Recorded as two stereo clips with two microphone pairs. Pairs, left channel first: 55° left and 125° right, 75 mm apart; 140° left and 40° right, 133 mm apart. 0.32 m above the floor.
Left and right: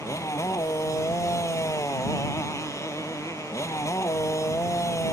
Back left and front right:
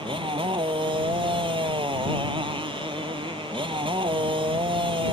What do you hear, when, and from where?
0.0 s a motorcycle: 10° left